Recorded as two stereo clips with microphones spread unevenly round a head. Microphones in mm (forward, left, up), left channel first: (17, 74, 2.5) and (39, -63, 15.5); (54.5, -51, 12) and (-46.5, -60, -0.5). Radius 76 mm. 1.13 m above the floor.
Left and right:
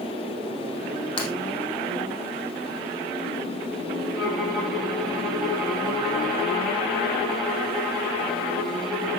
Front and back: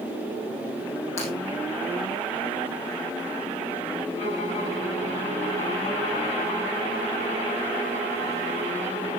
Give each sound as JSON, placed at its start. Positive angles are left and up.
{"t": 1.2, "sound": "breaking glass", "azimuth_deg": 45, "distance_m": 4.5}
{"t": 4.2, "sound": "a violin", "azimuth_deg": 10, "distance_m": 6.0}